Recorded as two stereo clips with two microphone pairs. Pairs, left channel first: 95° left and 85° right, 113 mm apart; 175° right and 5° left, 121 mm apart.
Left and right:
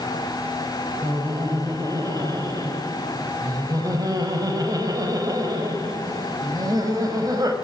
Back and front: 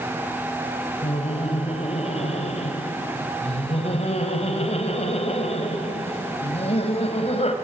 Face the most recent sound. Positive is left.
turn(degrees=-145)